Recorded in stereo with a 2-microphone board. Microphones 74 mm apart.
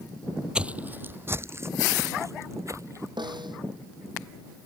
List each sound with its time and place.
0.6 s footsteps: 15° right (ahead or behind); by 3.1 s 45° right (ahead or behind)
3.2 s a snare drum: 90° right